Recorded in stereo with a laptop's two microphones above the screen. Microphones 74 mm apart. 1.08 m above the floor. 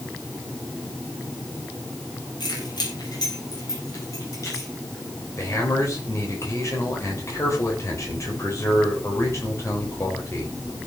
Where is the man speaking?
40° left (ahead or behind), 3.5 m.